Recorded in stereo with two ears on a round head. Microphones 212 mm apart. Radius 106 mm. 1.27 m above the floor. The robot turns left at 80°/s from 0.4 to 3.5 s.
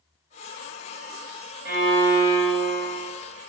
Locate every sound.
1.6 s a violin: 140° right, 1.7 m; by 3.1 s 100° left, 1.7 m